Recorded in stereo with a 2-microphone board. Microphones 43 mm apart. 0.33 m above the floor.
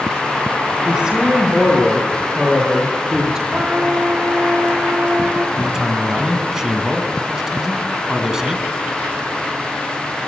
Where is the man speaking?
15° right (ahead or behind), 4 m.